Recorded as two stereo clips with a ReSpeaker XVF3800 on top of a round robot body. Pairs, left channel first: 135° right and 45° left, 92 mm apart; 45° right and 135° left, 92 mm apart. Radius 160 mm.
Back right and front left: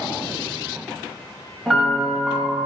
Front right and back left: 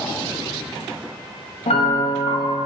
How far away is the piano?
About 0.8 m.